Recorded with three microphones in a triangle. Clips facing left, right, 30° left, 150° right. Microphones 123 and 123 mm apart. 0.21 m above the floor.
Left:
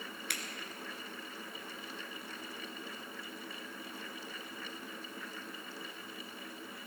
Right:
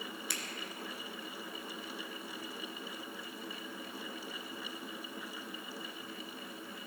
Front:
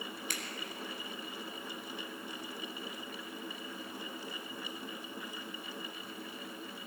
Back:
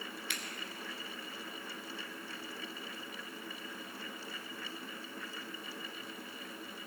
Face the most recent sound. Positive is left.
turn(degrees=75)